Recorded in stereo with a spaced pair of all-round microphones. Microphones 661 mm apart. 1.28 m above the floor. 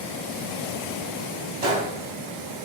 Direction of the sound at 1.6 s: 50° right (ahead or behind).